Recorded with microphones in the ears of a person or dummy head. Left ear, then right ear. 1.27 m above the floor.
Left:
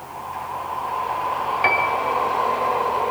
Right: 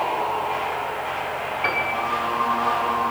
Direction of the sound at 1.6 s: 40° left (ahead or behind).